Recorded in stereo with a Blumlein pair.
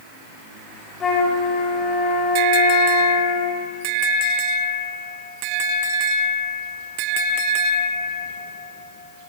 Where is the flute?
20° left, 7.5 m.